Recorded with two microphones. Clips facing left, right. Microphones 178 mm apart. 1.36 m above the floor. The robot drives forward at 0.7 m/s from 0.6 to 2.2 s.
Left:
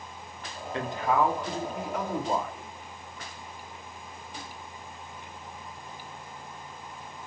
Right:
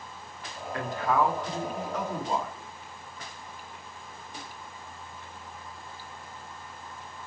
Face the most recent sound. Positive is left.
turn(degrees=10)  # may be behind; listen again after turning